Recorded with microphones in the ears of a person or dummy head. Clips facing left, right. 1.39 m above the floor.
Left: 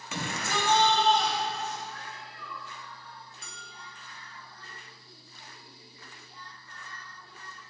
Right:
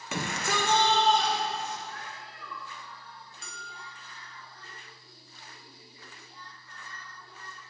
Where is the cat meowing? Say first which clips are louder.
Even; 35° right (ahead or behind), 2 m.